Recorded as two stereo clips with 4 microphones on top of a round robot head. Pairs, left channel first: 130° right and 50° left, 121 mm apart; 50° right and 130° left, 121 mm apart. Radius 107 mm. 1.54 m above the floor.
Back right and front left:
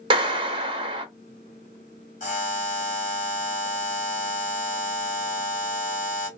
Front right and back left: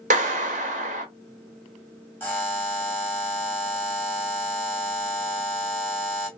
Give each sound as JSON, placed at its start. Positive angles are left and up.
{"t": 0.1, "sound": "a clap", "azimuth_deg": 100, "distance_m": 0.5}
{"t": 2.2, "sound": "a buzzer", "azimuth_deg": -125, "distance_m": 1.9}